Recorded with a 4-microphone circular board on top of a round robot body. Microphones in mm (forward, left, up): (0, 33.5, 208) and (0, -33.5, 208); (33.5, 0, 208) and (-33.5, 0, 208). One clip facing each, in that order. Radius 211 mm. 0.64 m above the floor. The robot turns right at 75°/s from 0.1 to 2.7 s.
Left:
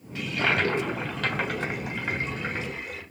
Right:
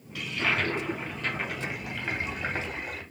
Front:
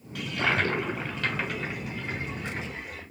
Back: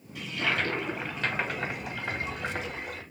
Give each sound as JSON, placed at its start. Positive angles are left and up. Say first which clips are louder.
{"t": 0.1, "sound": "a toilet flushing", "louder": "left 3 dB, front 3 dB", "azimuth_deg": 30, "distance_m": 0.7}